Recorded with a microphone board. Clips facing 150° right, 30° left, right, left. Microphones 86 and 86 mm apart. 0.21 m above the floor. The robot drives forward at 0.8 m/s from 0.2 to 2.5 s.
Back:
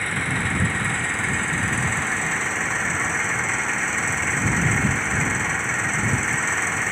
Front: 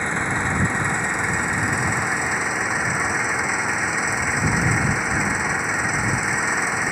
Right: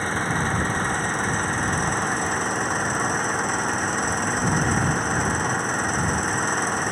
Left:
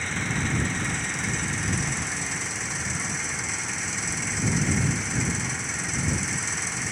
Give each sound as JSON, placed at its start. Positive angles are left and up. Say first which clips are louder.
{"t": 0.0, "sound": "an engine running", "louder": "front 2 dB, right 5 dB", "azimuth_deg": -40}